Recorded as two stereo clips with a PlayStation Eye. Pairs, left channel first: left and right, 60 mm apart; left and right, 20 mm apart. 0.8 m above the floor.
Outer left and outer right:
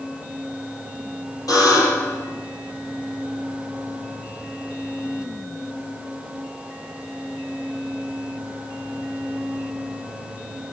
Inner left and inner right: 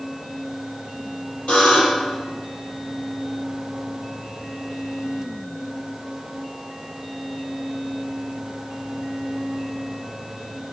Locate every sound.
1.5 s a buzzer: 75° left (ahead or behind), 8 m